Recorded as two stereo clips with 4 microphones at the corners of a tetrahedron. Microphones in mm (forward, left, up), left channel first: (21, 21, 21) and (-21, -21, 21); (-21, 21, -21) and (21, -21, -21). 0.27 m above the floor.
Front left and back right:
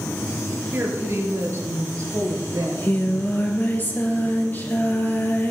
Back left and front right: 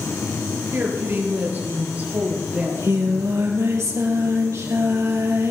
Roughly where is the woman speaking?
Right.